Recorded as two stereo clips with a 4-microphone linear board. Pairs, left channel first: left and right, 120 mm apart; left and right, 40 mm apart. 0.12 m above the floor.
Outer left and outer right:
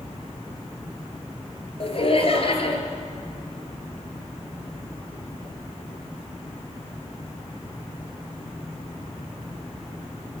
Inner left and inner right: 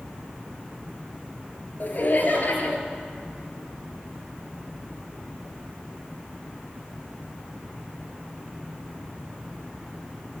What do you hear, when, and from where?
1.8 s laughter: 55° left (ahead or behind), 2.0 m